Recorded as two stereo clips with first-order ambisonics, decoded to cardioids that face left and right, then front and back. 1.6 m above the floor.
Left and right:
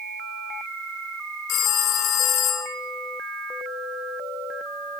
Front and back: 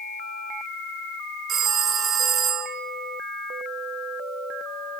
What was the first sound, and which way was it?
A phone ringing, 125° left.